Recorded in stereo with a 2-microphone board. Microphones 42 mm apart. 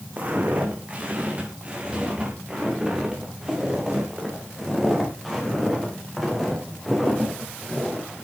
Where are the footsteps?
35° right (ahead or behind), 6.5 m; by 8.1 s centre (ahead or behind), 11.5 m.